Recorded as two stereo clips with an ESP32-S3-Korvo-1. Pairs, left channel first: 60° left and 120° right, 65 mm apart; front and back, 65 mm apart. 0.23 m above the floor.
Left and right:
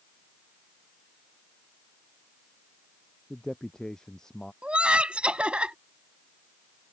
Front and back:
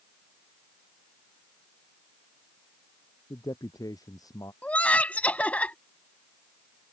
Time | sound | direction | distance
3.3 | a man speaking | 20° right | ?
4.6 | laughter | 55° right | ?